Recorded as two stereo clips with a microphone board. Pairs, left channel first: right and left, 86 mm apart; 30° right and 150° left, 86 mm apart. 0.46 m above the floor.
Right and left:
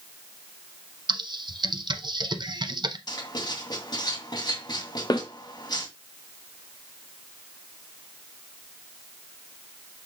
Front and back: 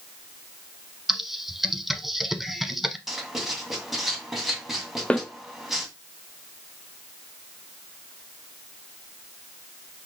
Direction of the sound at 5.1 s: 105° right.